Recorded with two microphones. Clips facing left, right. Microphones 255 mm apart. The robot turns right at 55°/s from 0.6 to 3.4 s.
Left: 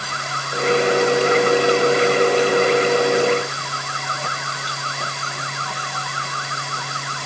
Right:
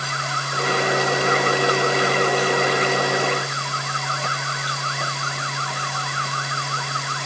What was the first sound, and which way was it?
Only background noise.